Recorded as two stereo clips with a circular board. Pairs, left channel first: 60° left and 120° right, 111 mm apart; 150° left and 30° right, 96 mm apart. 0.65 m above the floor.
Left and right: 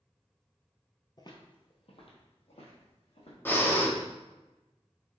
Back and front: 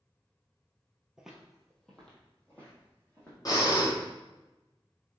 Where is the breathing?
125° left, 0.9 m.